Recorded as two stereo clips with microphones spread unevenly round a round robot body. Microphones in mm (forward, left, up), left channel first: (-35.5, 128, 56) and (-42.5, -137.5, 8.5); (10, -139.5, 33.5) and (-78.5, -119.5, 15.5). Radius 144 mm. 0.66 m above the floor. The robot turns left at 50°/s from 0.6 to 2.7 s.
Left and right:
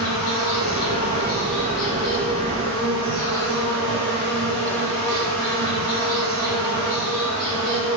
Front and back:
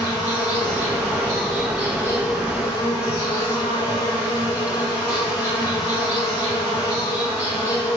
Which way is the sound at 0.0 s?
110° left.